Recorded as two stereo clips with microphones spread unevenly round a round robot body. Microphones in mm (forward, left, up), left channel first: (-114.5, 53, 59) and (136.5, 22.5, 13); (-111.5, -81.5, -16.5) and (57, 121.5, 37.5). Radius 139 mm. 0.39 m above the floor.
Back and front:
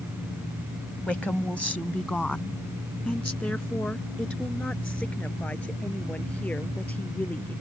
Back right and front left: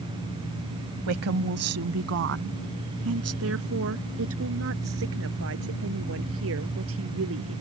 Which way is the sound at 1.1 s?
80° left.